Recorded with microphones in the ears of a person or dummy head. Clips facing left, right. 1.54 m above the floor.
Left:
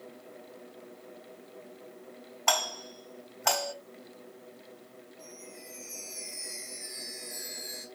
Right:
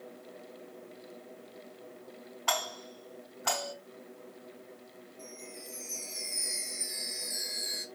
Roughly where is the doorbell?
Left.